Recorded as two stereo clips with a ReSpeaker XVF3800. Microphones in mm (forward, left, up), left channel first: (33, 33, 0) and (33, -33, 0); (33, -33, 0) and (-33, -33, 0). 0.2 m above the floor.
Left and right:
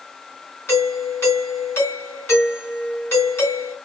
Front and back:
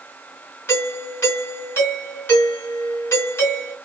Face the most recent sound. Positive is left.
turn(degrees=45)